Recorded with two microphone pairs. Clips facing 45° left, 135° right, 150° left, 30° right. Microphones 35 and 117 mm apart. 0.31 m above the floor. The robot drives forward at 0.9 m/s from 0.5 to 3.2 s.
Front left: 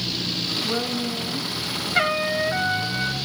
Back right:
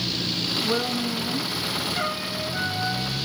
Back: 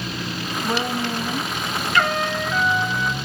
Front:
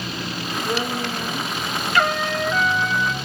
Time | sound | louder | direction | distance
0.6 | a woman speaking | back right 1 dB, back 2 dB | 150° left | 3.5 m
1.9 | a trumpet | front left 6 dB, front 1 dB | 60° left | 2.5 m